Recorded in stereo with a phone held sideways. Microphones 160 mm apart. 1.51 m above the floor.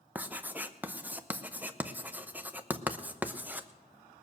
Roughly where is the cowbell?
I don't hear a cowbell.